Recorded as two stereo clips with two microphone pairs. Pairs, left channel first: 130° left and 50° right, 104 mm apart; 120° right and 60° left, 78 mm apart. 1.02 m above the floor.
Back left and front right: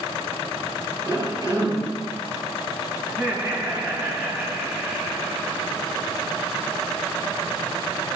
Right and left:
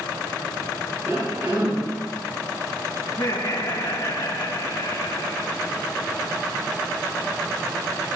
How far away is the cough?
About 5 m.